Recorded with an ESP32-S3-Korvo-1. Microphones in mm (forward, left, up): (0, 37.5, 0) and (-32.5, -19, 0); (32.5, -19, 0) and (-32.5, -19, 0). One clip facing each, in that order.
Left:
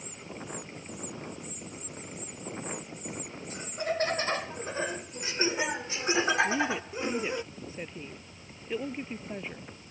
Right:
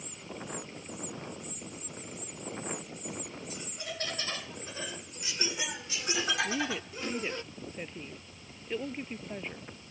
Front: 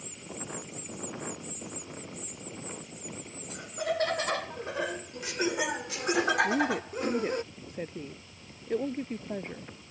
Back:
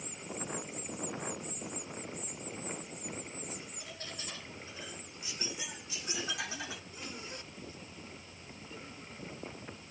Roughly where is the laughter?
Ahead.